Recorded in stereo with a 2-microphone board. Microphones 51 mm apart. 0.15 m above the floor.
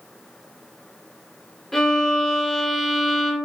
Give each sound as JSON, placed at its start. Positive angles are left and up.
{"t": 1.7, "sound": "a violin", "side_deg": 5, "distance_m": 0.7}